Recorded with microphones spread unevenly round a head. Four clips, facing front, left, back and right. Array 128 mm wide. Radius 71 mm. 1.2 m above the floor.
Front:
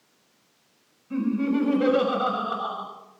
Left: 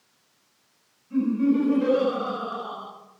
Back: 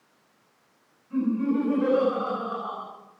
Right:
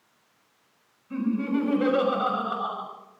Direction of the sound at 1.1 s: 25° right.